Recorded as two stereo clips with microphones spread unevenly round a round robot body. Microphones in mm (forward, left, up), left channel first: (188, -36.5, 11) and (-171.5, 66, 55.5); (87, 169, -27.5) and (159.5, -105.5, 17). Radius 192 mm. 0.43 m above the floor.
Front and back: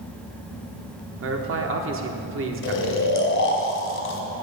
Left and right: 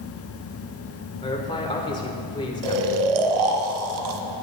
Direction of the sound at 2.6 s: 80° right.